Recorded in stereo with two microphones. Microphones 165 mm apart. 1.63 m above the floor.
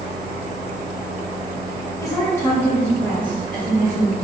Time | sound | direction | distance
2.0 | a woman speaking | 20° left (ahead or behind) | 1.2 m